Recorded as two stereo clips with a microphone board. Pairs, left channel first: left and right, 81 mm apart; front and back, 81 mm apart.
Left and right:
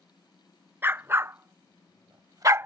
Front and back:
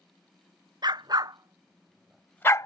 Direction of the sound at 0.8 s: 155° right.